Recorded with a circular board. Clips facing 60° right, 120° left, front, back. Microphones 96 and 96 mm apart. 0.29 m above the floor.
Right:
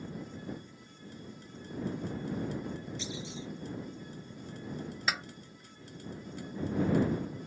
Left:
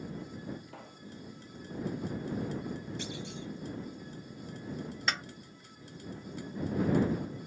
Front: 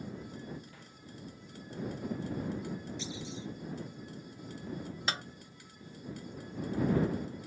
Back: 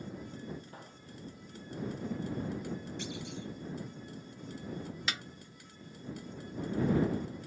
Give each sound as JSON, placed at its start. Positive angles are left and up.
{"t": 0.7, "sound": "a pop", "azimuth_deg": 125}
{"t": 3.0, "sound": "a clunk", "azimuth_deg": 150}
{"t": 5.1, "sound": "a snare drum", "azimuth_deg": 25}